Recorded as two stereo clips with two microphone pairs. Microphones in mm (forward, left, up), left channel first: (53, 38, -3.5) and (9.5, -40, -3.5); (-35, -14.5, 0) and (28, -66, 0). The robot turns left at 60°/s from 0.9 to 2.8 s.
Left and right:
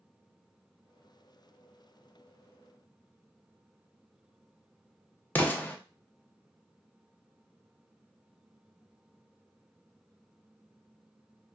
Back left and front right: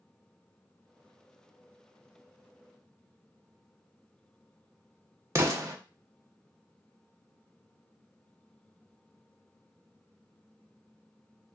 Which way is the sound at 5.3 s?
5° right.